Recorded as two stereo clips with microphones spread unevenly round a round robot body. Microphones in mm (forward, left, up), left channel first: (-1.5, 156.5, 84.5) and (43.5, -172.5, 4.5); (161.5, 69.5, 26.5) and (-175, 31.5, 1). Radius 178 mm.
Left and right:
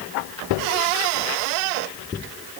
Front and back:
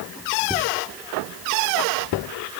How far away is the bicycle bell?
No bicycle bell in this recording.